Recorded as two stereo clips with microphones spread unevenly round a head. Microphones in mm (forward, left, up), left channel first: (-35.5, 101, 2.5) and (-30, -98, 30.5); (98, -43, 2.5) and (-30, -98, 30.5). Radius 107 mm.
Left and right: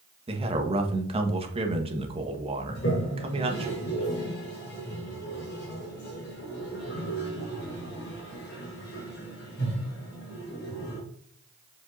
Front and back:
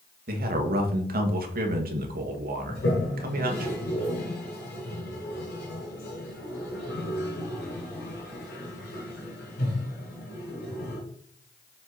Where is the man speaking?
150° right, 1.5 m.